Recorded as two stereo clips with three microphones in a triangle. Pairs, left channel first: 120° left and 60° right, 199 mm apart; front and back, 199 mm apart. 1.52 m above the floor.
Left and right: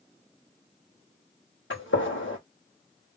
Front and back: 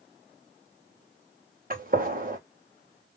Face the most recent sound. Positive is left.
turn(degrees=135)